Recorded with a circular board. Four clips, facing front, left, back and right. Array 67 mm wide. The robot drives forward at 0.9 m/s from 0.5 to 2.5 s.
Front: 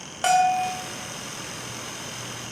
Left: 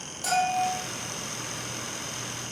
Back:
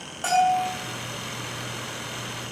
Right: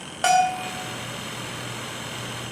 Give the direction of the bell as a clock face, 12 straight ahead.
2 o'clock.